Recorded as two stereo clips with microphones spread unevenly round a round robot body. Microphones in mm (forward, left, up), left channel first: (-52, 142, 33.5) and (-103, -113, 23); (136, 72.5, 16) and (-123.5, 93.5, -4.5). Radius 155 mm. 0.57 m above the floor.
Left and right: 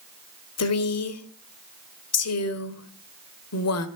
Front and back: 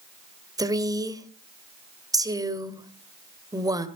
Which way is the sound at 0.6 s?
100° left.